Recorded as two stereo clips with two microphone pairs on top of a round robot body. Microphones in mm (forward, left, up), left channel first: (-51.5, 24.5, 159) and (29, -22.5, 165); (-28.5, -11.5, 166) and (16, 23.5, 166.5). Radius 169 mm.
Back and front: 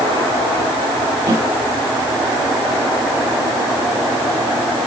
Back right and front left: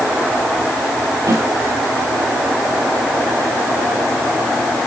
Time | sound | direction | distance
1.3 | a snare drum | 25° left | 4.5 m